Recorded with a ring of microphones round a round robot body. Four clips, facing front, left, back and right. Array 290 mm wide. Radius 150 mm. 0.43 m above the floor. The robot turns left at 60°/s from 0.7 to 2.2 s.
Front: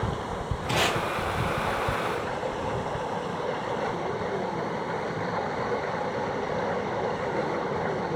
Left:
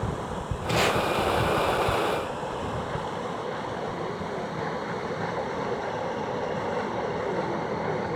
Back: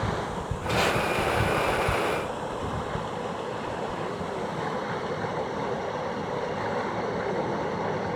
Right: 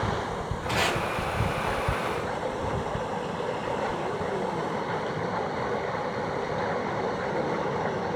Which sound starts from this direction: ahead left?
Tape being pulled, at 0.7 s.